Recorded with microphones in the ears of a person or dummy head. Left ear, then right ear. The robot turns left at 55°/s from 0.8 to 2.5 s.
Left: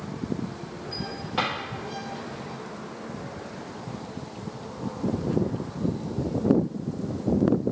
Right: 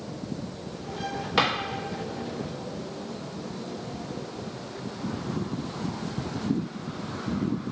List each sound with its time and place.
1.4 s a drawer: 30° right (ahead or behind), 1.4 m; by 1.5 s 35° right (ahead or behind), 1.4 m